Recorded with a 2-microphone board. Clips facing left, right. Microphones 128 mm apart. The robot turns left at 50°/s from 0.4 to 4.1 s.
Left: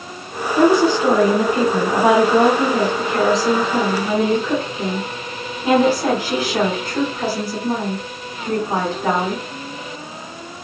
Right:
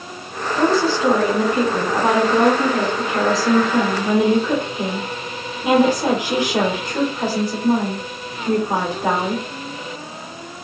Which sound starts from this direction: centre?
A woman speaking, at 0.6 s.